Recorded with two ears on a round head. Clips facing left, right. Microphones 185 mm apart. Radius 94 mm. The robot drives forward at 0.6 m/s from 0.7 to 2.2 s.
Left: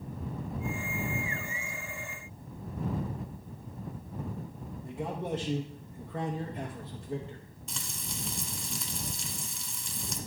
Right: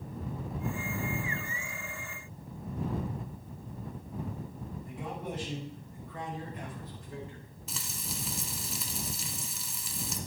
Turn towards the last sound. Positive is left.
turn(degrees=-5)  # may be behind; listen again after turning